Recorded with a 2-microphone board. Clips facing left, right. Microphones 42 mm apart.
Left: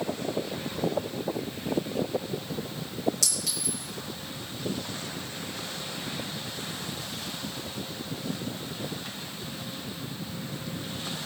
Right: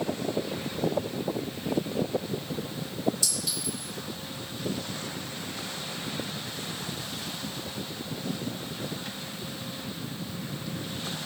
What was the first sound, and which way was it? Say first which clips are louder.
A clink: even; 80° left.